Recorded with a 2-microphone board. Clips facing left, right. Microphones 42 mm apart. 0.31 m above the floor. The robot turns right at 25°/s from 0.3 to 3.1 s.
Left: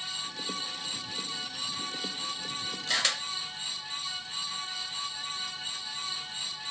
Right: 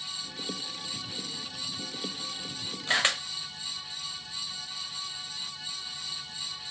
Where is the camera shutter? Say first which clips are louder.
Right 4 dB; 35° right (ahead or behind), 0.7 m.